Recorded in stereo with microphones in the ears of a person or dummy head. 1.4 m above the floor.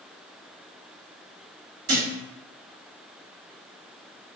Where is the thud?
55° right (ahead or behind), 1.4 m.